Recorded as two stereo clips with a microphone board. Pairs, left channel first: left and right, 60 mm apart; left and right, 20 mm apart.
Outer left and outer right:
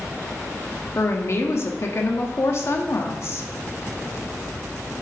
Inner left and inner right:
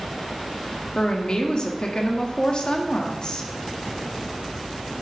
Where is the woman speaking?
50° left (ahead or behind), 1.1 m.